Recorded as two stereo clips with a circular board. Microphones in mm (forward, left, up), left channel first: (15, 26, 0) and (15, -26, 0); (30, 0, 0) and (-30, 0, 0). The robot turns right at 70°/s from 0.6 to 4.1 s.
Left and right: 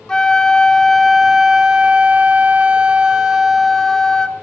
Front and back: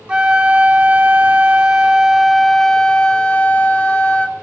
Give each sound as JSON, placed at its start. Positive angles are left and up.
{"t": 0.1, "sound": "a flute", "azimuth_deg": 145, "distance_m": 0.5}